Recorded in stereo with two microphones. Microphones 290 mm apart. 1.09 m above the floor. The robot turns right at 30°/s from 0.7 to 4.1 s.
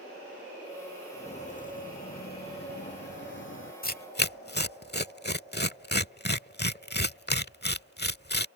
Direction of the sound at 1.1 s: 25° left (ahead or behind).